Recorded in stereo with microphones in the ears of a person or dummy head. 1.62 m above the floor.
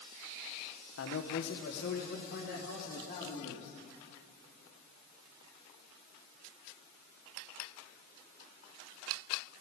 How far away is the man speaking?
About 1.1 m.